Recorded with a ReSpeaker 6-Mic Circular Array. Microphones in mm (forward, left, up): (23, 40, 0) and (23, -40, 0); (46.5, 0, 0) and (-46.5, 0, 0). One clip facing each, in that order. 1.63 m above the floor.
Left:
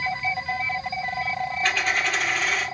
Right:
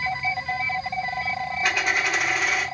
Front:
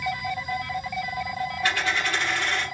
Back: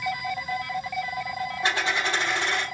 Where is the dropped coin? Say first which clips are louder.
Right 1 dB, back 1 dB; 155° right, 1.3 m.